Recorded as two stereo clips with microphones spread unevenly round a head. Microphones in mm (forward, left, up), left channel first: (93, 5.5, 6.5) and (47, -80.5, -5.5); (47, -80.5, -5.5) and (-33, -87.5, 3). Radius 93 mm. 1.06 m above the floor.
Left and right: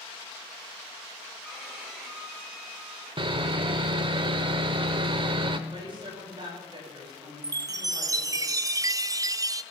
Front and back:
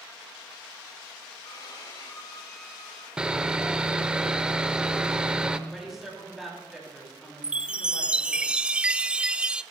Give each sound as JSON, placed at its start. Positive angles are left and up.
{"t": 1.4, "sound": "a violin", "azimuth_deg": -35, "distance_m": 7.0}
{"t": 3.2, "sound": "sawing", "azimuth_deg": -105, "distance_m": 0.9}
{"t": 5.7, "sound": "a woman speaking", "azimuth_deg": -90, "distance_m": 9.0}
{"t": 7.4, "sound": "a chime", "azimuth_deg": -95, "distance_m": 0.5}